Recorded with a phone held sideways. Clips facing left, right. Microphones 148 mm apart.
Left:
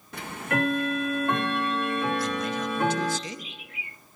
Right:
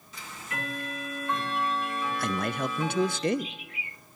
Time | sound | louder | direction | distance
0.1 | ticking | left 11 dB | 60° left (ahead or behind) | 1.2 m
2.2 | a man speaking | left 1 dB | 60° right (ahead or behind) | 0.5 m